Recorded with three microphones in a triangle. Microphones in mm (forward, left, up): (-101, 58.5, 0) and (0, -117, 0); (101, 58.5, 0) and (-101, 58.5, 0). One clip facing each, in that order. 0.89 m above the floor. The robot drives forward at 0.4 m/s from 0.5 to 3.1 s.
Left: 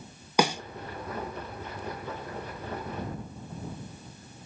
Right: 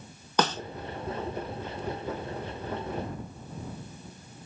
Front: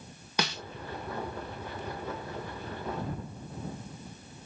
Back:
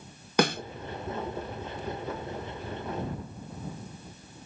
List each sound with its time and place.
0.4 s a snare drum: 165° right